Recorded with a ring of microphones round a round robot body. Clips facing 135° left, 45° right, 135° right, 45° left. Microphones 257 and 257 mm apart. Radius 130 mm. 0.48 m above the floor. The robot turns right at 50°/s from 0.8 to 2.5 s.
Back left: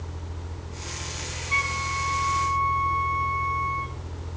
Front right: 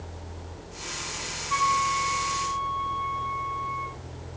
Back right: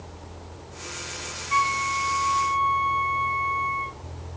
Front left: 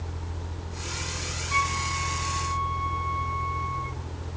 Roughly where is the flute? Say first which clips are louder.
Front right 3 dB, back right 5 dB; behind.